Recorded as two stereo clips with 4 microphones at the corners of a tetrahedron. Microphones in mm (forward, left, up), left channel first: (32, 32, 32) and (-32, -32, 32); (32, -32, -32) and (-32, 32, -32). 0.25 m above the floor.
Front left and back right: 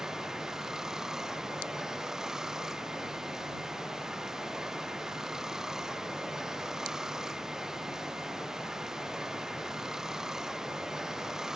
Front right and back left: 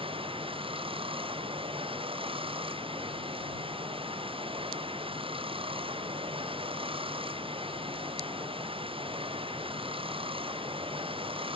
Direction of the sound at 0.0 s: 140° left.